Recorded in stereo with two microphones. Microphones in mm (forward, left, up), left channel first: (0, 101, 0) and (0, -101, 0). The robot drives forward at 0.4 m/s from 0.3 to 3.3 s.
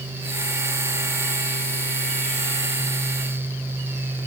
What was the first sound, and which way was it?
Only background noise.